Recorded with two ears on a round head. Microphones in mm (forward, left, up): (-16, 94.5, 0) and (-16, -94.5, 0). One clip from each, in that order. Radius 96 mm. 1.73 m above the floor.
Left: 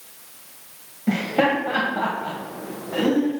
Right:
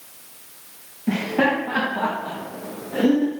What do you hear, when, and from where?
1.1 s laughter: 30° left (ahead or behind), 1.1 m; by 3.3 s 85° left, 1.9 m